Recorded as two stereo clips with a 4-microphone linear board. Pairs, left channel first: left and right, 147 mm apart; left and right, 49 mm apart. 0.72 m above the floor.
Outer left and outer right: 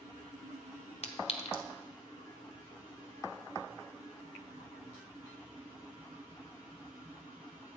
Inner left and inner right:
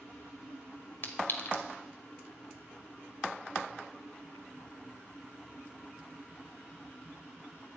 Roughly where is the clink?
Left.